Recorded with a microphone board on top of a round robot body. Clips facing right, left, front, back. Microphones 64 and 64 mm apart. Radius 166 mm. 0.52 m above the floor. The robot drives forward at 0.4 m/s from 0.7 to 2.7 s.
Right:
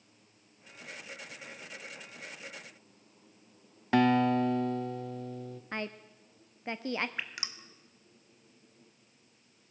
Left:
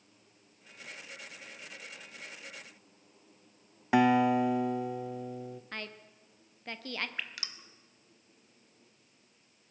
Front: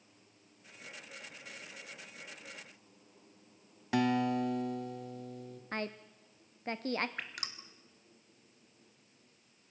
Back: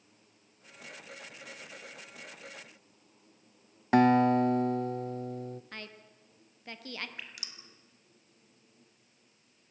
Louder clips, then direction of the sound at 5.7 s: Right 5 dB, front 7 dB; 30° right.